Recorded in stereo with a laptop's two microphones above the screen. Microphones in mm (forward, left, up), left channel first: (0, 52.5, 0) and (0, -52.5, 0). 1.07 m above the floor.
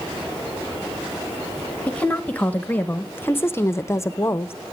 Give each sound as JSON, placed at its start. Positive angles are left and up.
{"t": 1.9, "sound": "a woman speaking", "side_deg": 15, "distance_m": 1.6}